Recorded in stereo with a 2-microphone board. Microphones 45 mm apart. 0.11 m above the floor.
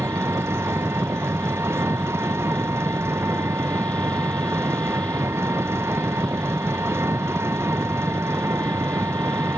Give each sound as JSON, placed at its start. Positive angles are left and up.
{"t": 0.0, "sound": "an engine running", "side_deg": -75}